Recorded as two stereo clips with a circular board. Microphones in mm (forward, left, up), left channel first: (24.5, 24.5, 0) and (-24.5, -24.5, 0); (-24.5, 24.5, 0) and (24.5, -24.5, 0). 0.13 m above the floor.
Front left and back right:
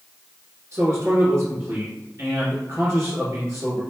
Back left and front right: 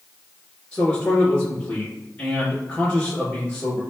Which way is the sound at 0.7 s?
150° right.